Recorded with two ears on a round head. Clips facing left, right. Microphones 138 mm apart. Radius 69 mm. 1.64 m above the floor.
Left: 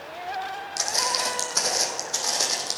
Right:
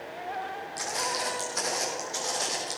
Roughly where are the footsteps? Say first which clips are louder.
Left 3 dB; left.